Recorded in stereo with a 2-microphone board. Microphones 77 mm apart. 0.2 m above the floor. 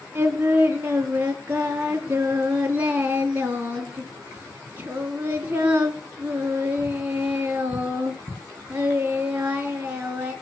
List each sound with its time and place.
0.1 s singing: 20° right (ahead or behind), 3 m